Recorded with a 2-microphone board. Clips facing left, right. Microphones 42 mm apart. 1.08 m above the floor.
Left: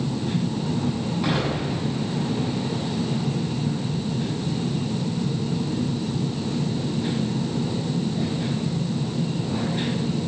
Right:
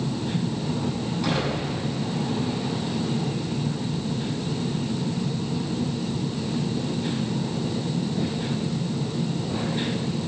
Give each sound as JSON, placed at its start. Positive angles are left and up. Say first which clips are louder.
{"t": 1.2, "sound": "an explosion", "louder": "left 1 dB", "side_deg": 15, "distance_m": 6.5}